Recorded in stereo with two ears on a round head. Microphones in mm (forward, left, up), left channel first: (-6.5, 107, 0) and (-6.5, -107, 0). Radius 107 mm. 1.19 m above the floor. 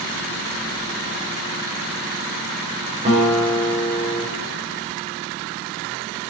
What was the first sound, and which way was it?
A guitar, 30° right (ahead or behind).